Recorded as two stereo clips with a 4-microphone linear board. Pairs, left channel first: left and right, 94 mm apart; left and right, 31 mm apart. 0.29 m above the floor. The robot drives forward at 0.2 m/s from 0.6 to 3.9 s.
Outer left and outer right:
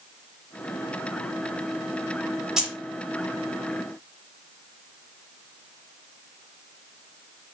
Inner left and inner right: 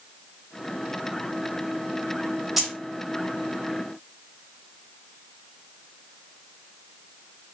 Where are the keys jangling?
5° right (ahead or behind), 0.8 m.